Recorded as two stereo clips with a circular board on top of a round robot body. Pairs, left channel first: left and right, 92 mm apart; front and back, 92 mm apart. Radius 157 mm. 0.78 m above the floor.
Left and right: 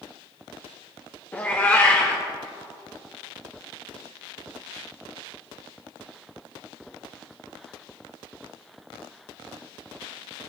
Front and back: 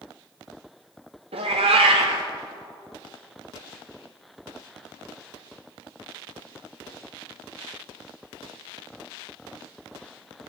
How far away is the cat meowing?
About 0.7 m.